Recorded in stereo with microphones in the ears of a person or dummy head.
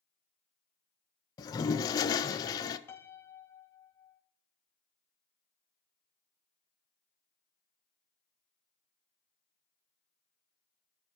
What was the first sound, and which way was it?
A toilet flushing, 20° left (ahead or behind).